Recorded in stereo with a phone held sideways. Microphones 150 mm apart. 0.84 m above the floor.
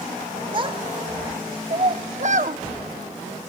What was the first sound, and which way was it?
A child speaking, 35° right (ahead or behind).